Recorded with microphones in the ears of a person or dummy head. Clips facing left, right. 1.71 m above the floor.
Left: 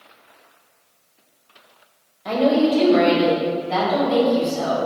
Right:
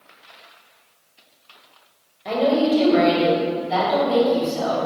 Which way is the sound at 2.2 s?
Centre (ahead or behind).